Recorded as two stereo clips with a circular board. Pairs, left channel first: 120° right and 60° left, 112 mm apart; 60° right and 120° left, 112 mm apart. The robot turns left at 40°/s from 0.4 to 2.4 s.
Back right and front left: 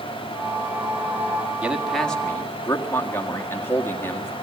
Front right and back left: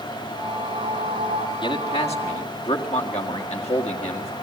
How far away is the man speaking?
About 1.8 m.